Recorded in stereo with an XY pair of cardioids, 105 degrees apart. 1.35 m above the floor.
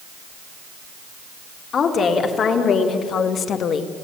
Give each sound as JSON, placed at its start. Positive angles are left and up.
{"t": 1.7, "sound": "a woman speaking", "azimuth_deg": 55, "distance_m": 3.5}